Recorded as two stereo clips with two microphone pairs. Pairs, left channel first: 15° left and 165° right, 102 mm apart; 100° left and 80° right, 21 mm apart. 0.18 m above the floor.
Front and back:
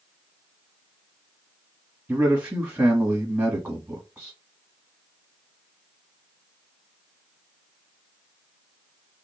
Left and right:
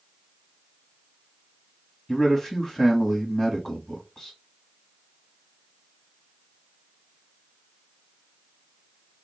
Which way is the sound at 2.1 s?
135° left.